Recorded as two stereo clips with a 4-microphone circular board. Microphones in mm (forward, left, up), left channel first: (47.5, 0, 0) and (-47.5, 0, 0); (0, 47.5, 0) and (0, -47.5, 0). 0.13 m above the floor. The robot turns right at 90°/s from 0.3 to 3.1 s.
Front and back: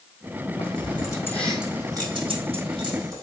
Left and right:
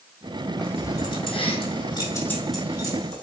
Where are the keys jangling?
5° left, 4 m; by 3.2 s 125° right, 4 m.